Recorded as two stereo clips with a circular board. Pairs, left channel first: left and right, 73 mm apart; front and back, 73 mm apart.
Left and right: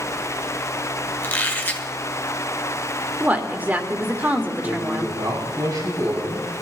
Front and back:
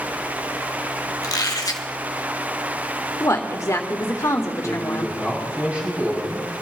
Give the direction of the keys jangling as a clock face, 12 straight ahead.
No keys jangling in this recording.